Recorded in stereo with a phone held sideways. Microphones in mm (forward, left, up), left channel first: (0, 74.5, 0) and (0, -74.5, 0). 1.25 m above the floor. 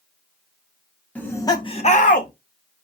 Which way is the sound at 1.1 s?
10° left (ahead or behind).